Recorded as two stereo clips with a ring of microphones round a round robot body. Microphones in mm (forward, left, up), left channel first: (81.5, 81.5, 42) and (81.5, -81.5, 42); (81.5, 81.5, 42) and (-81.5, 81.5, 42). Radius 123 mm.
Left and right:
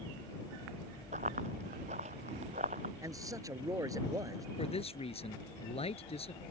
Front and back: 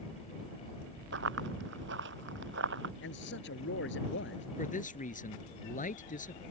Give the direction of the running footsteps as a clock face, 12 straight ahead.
5 o'clock.